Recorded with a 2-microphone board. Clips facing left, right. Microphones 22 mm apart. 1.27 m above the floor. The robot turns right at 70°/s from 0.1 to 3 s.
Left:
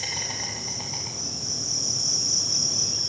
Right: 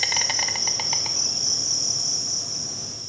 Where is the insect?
135° right, 1.0 m; by 3.1 s 70° left, 1.0 m.